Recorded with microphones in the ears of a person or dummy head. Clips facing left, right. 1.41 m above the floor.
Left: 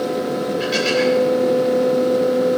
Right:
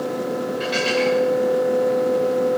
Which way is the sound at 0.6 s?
10° left (ahead or behind).